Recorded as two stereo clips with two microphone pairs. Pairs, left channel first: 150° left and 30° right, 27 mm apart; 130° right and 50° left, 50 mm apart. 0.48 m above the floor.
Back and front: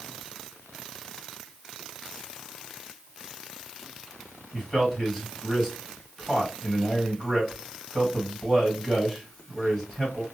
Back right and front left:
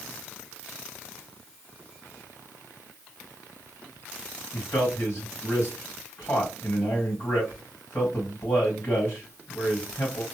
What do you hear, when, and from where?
4.5 s a man speaking: 115° right, 1.9 m